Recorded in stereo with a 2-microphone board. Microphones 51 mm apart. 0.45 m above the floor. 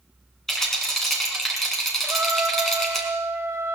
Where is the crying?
I don't hear crying.